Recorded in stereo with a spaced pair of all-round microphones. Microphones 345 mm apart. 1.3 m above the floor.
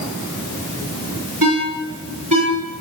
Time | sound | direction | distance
1.4 | a ringtone | 65° right (ahead or behind) | 3.5 m